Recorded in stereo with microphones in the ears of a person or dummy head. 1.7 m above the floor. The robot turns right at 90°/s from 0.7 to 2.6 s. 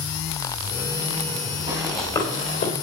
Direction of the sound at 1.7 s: 20° right (ahead or behind).